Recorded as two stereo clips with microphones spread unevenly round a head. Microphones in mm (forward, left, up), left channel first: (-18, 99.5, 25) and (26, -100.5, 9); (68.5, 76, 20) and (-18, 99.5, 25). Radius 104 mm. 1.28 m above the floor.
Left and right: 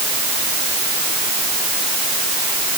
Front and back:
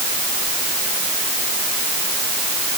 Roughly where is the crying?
No crying in this recording.